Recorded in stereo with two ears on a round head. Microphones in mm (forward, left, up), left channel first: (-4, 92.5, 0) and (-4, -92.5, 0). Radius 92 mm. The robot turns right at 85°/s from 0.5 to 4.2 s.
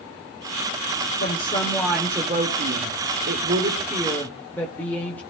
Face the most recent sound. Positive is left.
turn(degrees=10)